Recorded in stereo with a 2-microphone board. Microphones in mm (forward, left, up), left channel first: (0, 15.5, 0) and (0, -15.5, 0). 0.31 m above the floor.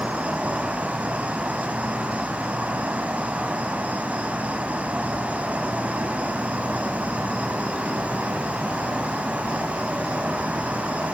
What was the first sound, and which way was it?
An insect, 55° right (ahead or behind).